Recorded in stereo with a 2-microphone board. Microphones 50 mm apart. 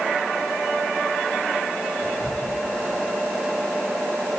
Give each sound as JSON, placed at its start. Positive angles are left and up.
{"t": 2.0, "sound": "whispering", "side_deg": -55, "distance_m": 4.0}